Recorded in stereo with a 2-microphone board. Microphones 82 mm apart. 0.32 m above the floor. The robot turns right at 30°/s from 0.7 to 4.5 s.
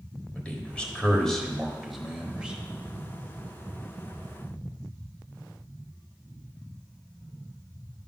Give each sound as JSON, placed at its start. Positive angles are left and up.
{"t": 0.3, "sound": "a man speaking", "side_deg": 15, "distance_m": 1.2}